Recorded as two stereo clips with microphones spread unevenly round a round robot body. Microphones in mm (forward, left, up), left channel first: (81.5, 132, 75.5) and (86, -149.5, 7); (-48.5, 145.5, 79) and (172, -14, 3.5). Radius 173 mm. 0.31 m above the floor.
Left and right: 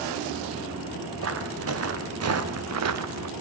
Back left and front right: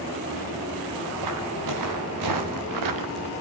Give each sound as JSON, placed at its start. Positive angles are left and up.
{"t": 1.2, "sound": "footsteps", "azimuth_deg": -50, "distance_m": 4.5}